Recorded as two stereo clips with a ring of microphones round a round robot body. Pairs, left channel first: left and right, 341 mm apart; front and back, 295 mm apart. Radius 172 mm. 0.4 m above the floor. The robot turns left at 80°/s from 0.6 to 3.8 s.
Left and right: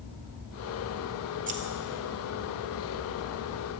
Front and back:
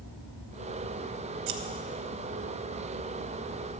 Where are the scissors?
160° right, 0.6 m; by 1.6 s 170° right, 0.6 m.